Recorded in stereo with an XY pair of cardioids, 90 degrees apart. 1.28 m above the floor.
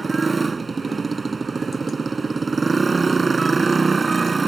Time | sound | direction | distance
0.0 | a motorcycle | 30° right | ?